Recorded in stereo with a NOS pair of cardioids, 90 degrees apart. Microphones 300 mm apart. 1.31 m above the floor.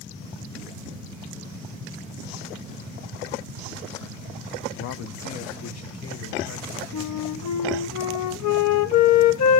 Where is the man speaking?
70° left, 0.7 m; by 6.8 s 55° left, 1.8 m.